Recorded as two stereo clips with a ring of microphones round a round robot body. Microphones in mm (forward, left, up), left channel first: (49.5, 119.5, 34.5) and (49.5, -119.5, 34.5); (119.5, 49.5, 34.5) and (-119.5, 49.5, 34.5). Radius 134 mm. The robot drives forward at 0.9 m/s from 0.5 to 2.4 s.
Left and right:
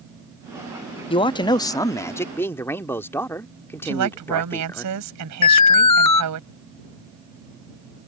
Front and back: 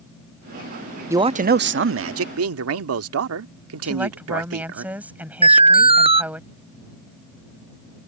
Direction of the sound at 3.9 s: 95° right.